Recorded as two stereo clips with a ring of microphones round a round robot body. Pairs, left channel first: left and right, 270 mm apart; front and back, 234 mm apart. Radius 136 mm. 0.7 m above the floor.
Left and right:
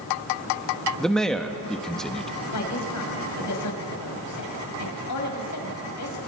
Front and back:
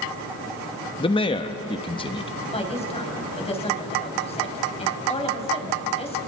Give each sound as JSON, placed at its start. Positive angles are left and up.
{"t": 1.0, "sound": "a man speaking", "azimuth_deg": 5, "distance_m": 1.1}
{"t": 2.5, "sound": "a woman speaking", "azimuth_deg": 65, "distance_m": 5.0}